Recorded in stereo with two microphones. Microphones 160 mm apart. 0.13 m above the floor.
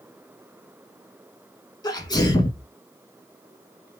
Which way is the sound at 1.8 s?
25° left (ahead or behind).